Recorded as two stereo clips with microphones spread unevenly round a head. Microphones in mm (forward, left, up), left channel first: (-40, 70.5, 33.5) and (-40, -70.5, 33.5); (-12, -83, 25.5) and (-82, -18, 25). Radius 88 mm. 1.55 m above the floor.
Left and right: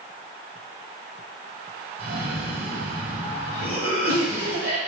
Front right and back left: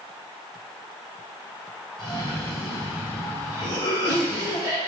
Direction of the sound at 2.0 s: 80° right.